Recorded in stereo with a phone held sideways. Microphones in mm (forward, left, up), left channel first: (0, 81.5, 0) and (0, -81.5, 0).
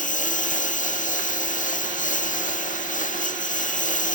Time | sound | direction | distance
0.0 | a lawn mower | 50° left (ahead or behind) | ?